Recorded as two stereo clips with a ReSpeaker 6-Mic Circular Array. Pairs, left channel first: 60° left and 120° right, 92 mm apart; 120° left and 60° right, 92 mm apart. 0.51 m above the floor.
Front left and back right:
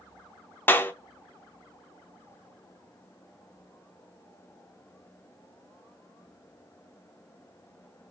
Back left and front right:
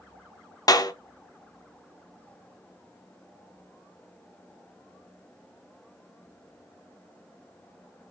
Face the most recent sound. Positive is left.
turn(degrees=115)